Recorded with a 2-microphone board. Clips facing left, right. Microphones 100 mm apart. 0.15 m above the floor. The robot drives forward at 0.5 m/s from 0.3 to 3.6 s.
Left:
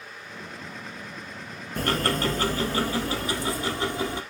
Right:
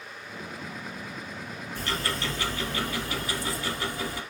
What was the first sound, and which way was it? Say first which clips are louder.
Ticking: left 7 dB; 60° left (ahead or behind).